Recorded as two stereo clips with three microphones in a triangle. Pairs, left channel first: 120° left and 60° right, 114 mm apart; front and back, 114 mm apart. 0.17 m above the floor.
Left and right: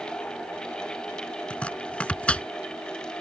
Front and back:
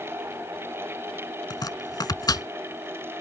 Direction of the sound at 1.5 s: 45° left.